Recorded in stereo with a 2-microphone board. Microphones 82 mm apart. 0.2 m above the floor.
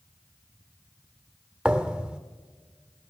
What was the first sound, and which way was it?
A thud, 10° right (ahead or behind).